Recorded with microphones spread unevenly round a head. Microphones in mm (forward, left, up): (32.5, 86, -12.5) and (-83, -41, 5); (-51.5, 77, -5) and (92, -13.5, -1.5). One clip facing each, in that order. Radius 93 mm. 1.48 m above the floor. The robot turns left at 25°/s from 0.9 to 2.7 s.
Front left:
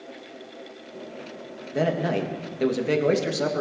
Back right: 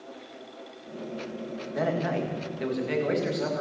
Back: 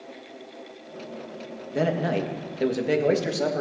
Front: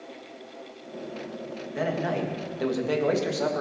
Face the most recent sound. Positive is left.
turn(degrees=80)